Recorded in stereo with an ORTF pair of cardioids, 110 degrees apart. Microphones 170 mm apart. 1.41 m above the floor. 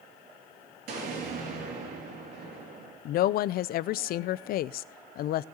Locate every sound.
0.9 s an explosion: 70° right, 5 m
3.0 s a woman speaking: 65° left, 0.6 m